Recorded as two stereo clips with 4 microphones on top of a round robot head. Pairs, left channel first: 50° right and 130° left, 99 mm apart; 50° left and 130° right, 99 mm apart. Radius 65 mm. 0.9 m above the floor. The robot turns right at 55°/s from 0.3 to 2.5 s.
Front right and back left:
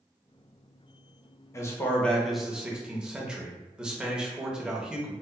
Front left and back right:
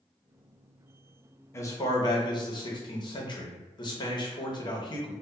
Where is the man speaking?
Straight ahead, 0.7 m; by 5.1 s 50° left, 0.7 m.